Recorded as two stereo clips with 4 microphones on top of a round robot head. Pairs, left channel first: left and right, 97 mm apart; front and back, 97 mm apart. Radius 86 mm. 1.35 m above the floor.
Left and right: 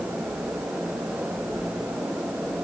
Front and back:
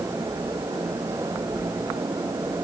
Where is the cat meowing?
No cat meowing in this recording.